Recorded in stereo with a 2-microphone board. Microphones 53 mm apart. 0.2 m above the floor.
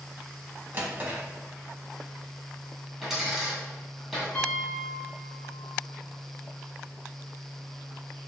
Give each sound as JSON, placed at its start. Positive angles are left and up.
{"t": 0.7, "sound": "a drawer", "side_deg": -35, "distance_m": 0.8}
{"t": 3.0, "sound": "a dropped coin", "side_deg": -10, "distance_m": 1.9}
{"t": 4.3, "sound": "a piano", "side_deg": 20, "distance_m": 1.2}